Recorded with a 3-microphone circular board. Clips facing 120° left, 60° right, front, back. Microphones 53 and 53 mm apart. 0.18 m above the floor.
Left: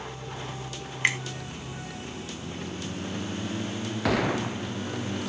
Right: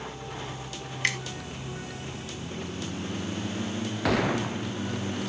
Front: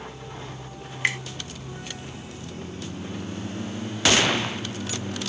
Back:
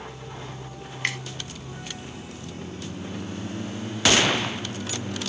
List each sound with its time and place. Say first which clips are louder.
1.0 s a finger snap: left 3 dB, front 3 dB; 70° left, 0.8 m